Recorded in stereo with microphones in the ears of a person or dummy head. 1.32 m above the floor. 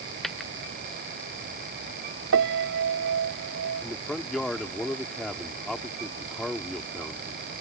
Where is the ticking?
I don't hear ticking.